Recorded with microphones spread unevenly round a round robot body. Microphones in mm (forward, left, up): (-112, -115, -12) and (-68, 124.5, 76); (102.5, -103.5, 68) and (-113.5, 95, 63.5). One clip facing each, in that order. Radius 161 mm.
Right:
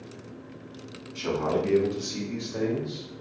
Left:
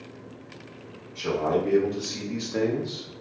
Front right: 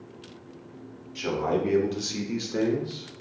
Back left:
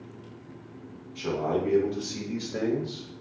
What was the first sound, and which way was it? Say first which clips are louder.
A man speaking: left 2 dB, front right 1 dB; 85° right.